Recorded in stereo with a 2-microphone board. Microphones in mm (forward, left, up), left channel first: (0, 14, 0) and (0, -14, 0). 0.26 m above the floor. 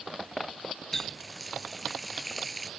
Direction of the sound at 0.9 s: 15° left (ahead or behind).